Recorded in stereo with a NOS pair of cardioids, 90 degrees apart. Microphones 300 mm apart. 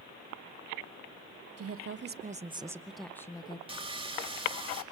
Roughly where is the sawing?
Ahead.